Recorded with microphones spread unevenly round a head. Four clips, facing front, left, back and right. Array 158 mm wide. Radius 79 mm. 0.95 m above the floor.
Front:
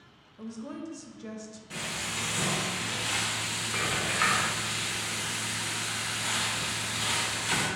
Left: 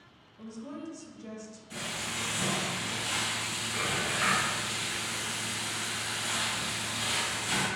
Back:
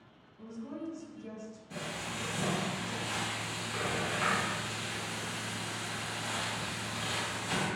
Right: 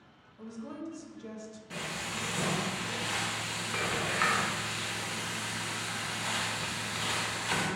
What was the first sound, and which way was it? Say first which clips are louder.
A woman speaking: even, front 3 dB; 15° left.